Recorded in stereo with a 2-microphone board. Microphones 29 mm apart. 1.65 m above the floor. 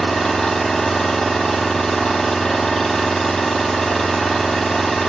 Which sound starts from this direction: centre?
An engine running, at 0.0 s.